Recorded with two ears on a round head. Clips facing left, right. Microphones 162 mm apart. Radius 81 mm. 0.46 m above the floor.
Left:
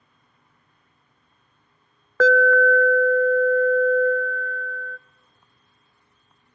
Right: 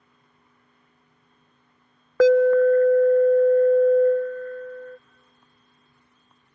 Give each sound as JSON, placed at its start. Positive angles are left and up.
{"t": 2.2, "sound": "an alarm", "side_deg": -15, "distance_m": 0.6}